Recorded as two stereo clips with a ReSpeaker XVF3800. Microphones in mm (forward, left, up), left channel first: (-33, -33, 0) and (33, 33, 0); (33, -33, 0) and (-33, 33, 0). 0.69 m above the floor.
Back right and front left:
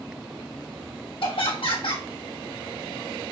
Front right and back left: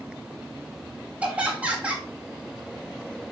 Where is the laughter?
150° right, 2.5 m.